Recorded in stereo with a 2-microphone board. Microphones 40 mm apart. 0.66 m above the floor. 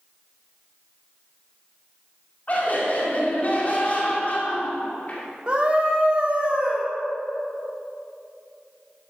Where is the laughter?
40° left (ahead or behind), 2 m.